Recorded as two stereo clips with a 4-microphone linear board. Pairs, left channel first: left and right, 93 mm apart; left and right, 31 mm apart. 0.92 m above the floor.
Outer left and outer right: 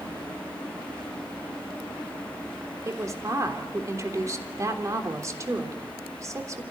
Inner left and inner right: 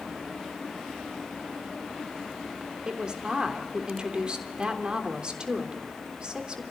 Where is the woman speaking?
35° right (ahead or behind), 3.5 m.